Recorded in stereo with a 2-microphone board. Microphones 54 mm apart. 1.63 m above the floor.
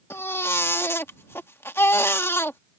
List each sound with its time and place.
0.1 s a baby crying: 50° left (ahead or behind)